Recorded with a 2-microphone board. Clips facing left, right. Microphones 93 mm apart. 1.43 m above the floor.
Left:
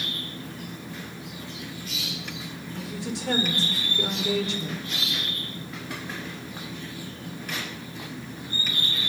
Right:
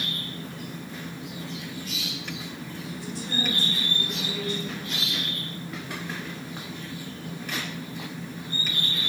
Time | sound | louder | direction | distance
2.8 | a woman speaking | left 4 dB | 80° left | 5 m